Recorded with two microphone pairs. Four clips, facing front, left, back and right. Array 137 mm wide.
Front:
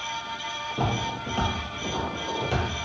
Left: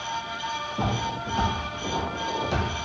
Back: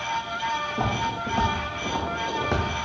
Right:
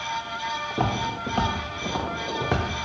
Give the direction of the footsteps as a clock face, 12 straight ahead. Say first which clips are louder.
Right 3 dB, back 2 dB; 3 o'clock.